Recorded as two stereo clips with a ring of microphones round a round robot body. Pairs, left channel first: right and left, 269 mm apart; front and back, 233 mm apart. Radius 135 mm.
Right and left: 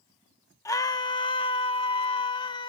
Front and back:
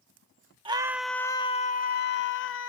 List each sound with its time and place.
0.7 s a scream: 150° right; by 2.7 s 20° right